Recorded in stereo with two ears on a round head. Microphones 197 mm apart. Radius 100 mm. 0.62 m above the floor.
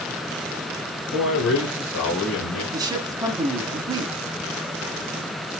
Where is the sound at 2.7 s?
20° right (ahead or behind), 1.3 m.